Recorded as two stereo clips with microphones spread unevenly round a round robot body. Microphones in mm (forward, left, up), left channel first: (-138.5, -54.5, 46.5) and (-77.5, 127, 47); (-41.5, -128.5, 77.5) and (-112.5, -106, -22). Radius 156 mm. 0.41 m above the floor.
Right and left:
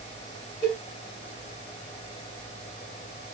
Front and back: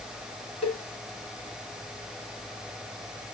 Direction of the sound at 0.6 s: 30° right.